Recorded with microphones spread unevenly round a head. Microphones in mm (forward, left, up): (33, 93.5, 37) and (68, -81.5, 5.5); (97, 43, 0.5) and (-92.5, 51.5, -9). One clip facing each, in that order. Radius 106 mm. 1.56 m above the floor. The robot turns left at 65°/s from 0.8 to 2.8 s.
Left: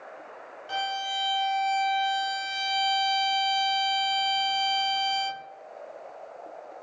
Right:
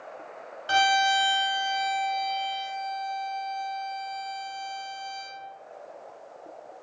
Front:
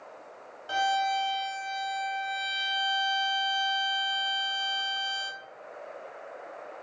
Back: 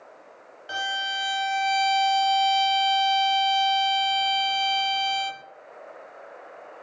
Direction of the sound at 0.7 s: 100° right.